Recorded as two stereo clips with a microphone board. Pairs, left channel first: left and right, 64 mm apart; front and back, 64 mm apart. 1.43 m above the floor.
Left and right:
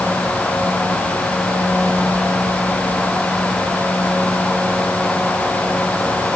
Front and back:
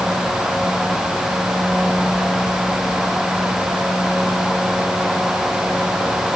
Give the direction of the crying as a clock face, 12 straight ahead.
No crying in this recording.